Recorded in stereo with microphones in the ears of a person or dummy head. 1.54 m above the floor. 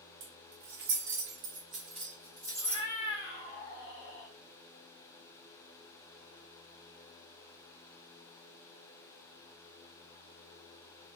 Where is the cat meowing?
25° left (ahead or behind), 1.4 m.